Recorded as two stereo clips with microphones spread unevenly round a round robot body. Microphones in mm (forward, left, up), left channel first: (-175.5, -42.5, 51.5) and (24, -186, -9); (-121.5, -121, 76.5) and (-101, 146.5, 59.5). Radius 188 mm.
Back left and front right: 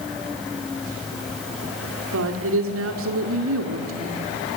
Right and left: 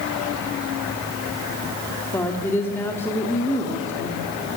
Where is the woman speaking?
10° right, 1.7 m.